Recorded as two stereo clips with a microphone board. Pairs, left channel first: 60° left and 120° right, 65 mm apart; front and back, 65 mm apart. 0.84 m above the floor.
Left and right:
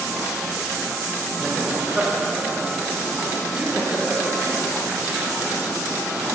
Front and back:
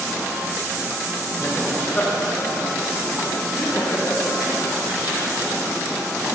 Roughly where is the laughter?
Ahead right.